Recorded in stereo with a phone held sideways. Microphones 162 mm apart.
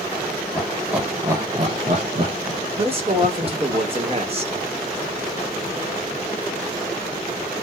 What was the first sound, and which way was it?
Laughter, 10° left (ahead or behind).